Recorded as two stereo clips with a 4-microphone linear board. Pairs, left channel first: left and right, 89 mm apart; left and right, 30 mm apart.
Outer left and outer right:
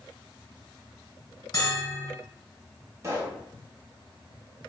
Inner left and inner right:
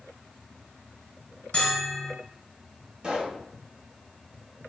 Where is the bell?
50° left (ahead or behind), 0.9 m.